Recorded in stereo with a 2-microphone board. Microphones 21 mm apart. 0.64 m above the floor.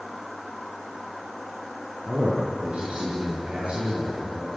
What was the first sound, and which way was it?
A man speaking, 70° right (ahead or behind).